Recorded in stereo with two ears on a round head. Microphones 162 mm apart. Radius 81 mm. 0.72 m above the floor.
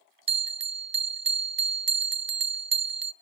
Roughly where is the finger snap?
I don't hear a finger snap.